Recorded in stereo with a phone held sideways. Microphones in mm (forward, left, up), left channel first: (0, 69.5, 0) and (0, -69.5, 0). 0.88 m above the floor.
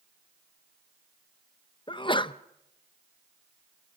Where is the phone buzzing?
No phone buzzing in this recording.